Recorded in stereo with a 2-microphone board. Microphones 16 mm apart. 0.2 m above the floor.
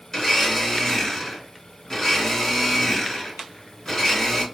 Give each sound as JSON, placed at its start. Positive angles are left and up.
{"t": 0.1, "sound": "a blender", "side_deg": 25, "distance_m": 2.0}